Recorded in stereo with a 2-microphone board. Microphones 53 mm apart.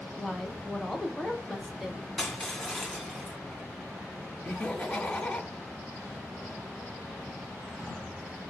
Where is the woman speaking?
5° right (ahead or behind), 1.1 m.